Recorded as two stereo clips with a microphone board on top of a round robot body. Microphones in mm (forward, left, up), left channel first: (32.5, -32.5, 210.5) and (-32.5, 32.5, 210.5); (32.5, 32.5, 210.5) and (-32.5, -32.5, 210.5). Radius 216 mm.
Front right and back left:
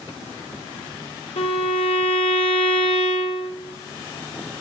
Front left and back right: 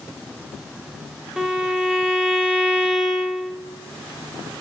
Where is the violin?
50° right, 0.7 m.